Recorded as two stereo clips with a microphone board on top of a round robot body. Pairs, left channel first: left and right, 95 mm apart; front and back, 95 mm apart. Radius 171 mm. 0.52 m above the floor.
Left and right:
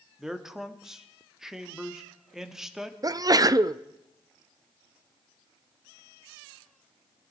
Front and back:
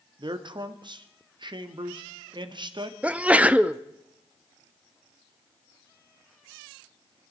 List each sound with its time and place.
0.2 s a man speaking: 175° right, 1.7 m
3.0 s a sneeze: 110° right, 0.8 m